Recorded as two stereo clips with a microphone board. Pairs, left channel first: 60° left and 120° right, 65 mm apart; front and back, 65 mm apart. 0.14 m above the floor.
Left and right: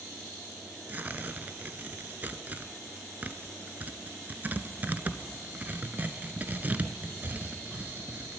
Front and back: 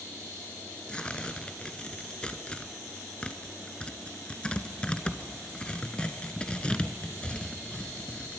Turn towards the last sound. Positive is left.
turn(degrees=-65)